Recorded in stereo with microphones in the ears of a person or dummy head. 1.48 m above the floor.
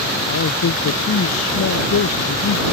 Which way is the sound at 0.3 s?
70° left (ahead or behind).